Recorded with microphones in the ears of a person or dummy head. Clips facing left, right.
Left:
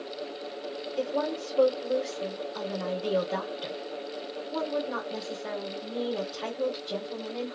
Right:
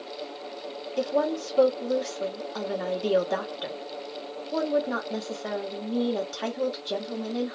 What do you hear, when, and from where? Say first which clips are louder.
1.0 s a woman speaking: right 4 dB; 60° right (ahead or behind), 1.1 m